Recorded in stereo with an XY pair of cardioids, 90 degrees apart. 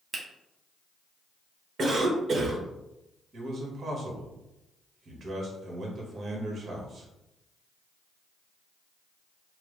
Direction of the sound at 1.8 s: 50° right.